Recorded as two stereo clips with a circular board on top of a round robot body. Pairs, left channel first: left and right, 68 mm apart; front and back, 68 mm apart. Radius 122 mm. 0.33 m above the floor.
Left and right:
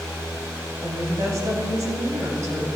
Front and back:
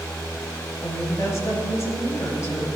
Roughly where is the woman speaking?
Ahead right.